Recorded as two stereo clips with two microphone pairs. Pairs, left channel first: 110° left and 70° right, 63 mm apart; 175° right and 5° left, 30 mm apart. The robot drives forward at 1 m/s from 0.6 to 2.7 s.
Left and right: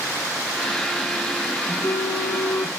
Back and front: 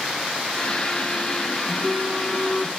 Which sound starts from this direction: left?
A phone buzzing, at 1.7 s.